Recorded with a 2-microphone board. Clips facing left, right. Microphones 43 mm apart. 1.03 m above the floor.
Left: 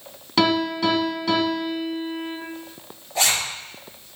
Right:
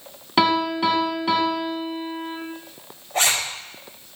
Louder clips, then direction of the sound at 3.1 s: Right 1 dB; 60° right (ahead or behind).